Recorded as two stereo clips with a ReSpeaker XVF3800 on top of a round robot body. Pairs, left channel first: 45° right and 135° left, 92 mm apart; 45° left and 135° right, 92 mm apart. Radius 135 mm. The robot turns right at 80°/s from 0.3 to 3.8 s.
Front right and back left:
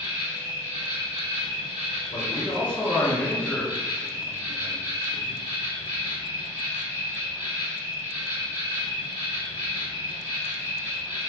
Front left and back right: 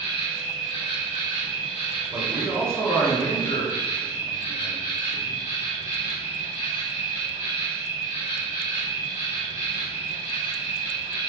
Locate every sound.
0.0 s an insect: 110° left, 0.7 m; by 11.3 s 30° left, 0.7 m
2.1 s a man speaking: 80° right, 1.3 m; by 5.4 s 55° left, 1.3 m